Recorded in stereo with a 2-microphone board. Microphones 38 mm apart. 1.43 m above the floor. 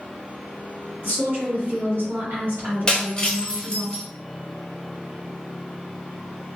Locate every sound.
1.0 s a woman speaking: 65° right (ahead or behind), 1.4 m
2.9 s breaking glass: 20° left (ahead or behind), 0.8 m